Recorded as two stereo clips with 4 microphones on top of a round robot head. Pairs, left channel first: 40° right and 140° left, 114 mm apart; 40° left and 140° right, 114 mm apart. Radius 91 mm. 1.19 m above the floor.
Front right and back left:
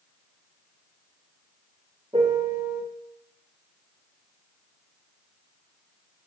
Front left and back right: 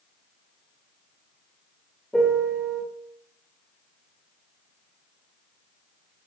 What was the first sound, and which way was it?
A piano, 125° left.